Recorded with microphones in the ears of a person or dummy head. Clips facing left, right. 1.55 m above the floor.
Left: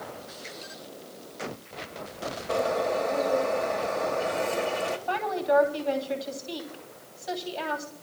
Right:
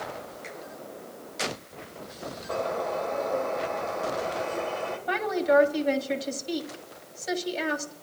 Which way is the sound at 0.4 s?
30° right (ahead or behind).